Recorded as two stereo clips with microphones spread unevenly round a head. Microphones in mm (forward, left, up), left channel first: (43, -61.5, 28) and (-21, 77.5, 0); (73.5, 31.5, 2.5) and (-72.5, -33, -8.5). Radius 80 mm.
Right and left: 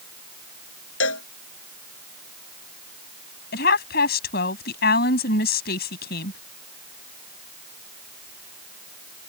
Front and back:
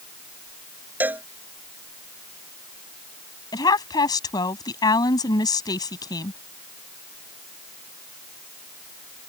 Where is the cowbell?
75° right.